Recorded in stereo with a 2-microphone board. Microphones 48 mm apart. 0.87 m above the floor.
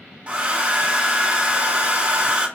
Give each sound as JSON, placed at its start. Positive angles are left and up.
{"t": 0.3, "sound": "a hair dryer", "side_deg": -25, "distance_m": 1.0}